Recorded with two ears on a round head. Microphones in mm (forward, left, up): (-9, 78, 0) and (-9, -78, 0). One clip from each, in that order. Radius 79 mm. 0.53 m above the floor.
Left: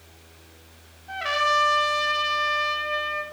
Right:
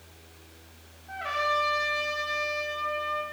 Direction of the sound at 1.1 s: 65° left (ahead or behind).